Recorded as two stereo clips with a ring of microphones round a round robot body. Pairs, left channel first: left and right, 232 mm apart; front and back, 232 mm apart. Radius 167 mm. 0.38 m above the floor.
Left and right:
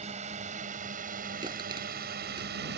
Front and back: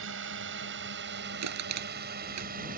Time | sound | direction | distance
0.0 | a drone | 155° right | ?
1.4 | crushing | 170° right | ?